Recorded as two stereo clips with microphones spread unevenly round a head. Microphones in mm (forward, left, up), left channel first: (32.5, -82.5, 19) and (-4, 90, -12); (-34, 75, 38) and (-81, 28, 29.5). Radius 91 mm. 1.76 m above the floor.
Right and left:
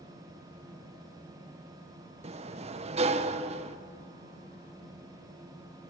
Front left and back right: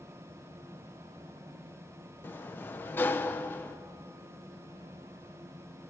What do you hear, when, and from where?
2.2 s a sliding door: 55° left, 0.8 m